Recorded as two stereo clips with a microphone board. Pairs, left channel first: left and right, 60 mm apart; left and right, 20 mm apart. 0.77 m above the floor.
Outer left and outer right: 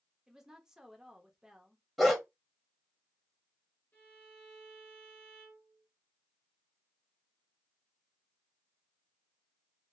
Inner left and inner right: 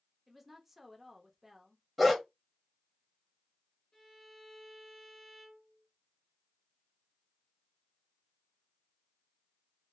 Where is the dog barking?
Centre (ahead or behind), 0.7 m.